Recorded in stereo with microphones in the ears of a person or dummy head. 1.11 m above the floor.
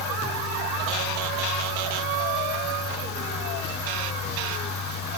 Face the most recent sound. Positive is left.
turn(degrees=60)  # may be behind; listen again after turning